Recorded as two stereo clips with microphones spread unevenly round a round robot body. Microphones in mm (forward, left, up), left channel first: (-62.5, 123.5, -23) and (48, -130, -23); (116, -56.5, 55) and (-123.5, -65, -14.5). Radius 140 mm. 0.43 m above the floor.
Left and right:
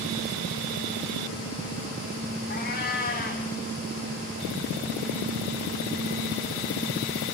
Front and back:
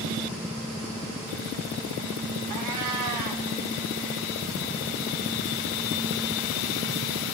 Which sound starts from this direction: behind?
A cat meowing, at 2.5 s.